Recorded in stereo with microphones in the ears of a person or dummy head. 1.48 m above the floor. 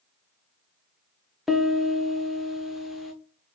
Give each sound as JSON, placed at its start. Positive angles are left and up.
{"t": 1.5, "sound": "a piano", "side_deg": 0, "distance_m": 0.6}